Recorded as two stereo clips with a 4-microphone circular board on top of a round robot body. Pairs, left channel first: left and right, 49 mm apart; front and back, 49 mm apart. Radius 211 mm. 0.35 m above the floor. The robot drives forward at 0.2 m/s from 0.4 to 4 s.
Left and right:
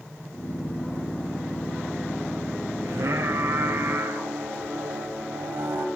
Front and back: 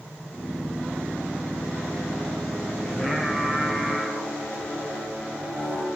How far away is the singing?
About 3.5 m.